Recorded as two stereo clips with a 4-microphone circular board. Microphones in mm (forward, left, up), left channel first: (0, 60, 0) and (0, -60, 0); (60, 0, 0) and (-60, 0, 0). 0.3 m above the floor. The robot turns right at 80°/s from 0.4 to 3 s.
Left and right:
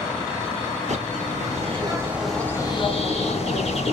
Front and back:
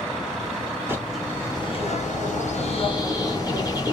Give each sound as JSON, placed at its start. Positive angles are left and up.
{"t": 0.9, "sound": "a bird", "azimuth_deg": -110, "distance_m": 2.5}